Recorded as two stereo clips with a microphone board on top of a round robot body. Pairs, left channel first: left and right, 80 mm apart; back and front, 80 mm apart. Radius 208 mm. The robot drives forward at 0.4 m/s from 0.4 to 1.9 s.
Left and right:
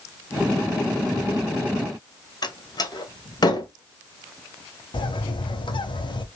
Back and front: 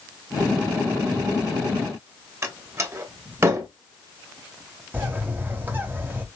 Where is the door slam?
55° left, 1.9 m.